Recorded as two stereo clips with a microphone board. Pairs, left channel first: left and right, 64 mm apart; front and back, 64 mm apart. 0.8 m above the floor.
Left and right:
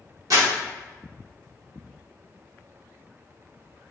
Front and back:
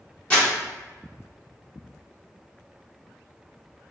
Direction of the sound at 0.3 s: 70° right.